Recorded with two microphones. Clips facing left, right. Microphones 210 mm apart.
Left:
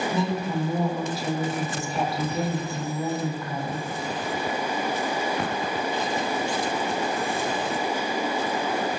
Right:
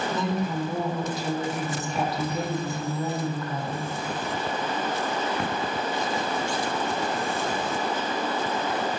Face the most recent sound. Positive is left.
turn(degrees=0)  # may be behind; listen again after turning